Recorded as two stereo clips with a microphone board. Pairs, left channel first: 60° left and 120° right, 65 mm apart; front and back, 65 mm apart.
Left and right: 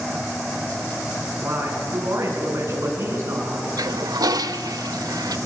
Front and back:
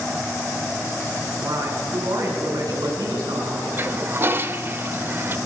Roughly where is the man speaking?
Behind.